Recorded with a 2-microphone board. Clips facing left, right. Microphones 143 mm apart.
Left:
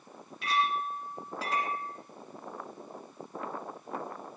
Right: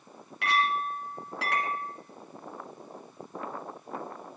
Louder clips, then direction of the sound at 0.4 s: Right 2 dB; 70° right (ahead or behind).